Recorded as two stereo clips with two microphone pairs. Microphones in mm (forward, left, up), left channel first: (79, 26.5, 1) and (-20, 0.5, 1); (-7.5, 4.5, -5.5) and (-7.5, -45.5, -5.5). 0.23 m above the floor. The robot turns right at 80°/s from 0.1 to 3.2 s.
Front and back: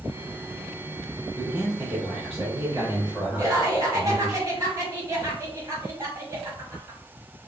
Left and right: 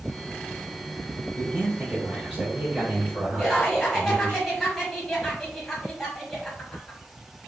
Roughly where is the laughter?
Behind.